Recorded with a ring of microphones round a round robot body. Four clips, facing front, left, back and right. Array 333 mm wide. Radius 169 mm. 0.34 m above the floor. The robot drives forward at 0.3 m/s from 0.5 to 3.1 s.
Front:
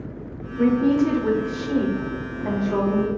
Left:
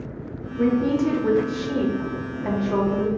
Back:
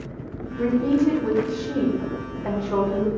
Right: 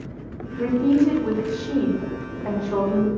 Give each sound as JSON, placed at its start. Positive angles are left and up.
{"t": 0.6, "sound": "a woman speaking", "azimuth_deg": 25, "distance_m": 1.0}